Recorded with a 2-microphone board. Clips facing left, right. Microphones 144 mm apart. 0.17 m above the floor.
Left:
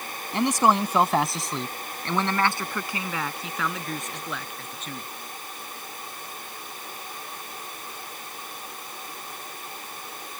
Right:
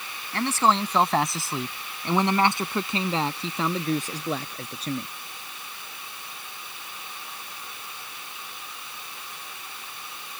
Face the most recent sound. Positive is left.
turn(degrees=-40)  # may be behind; listen again after turning